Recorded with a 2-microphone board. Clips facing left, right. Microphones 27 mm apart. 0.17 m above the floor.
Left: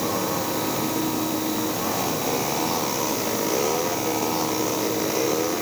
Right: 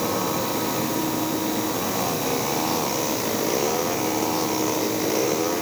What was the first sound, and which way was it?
Only background noise.